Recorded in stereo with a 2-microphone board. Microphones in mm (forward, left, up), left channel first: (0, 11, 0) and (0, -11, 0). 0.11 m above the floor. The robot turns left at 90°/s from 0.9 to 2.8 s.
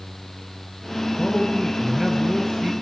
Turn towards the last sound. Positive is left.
turn(degrees=-95)